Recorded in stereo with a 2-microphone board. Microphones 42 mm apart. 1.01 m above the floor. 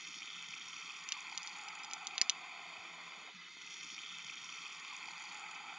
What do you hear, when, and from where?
0.0 s running water: 5° right (ahead or behind)
1.1 s a crack: 25° right (ahead or behind)